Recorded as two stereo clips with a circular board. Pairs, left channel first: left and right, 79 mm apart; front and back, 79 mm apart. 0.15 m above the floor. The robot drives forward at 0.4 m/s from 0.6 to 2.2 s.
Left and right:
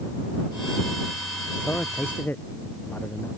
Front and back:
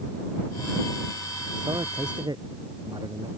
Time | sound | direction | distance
1.6 | a man speaking | 155° left | ?